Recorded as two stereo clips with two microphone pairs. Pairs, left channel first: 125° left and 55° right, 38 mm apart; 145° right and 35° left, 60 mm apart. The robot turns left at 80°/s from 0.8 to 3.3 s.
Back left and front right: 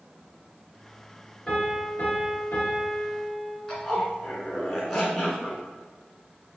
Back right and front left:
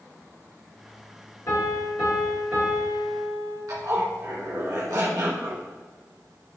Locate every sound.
1.5 s a piano: 170° right, 1.9 m; by 3.6 s 40° left, 1.9 m
3.7 s a zipper: 40° left, 1.4 m